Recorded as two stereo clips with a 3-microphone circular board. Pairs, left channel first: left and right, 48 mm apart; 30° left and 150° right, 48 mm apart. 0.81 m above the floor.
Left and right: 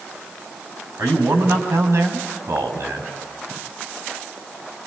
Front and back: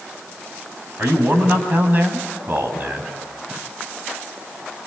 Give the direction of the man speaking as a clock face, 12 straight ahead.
3 o'clock.